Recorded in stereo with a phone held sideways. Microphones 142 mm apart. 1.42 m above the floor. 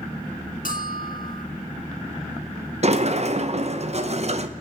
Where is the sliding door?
50° right (ahead or behind), 0.8 m.